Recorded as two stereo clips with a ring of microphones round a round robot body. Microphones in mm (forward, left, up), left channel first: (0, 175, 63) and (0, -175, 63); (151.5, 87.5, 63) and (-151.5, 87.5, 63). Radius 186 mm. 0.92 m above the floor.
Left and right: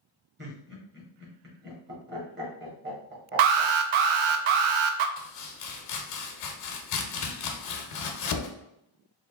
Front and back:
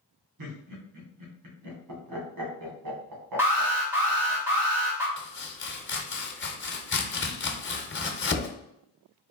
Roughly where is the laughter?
Behind right.